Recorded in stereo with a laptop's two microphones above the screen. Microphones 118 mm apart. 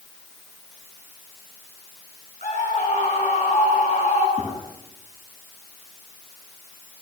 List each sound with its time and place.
2.4 s a scream: 80° left, 9.5 m
4.4 s a gunshot: 70° right (ahead or behind), 8.5 m